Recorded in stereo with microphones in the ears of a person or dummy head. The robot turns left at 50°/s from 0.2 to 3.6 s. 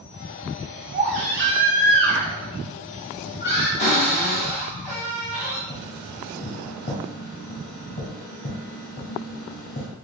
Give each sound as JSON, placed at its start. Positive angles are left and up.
{"t": 0.9, "sound": "a baby crying", "azimuth_deg": -85, "distance_m": 0.9}
{"t": 3.8, "sound": "a cupboard door", "side_deg": 50, "distance_m": 1.5}
{"t": 5.7, "sound": "tapping", "side_deg": 40, "distance_m": 1.5}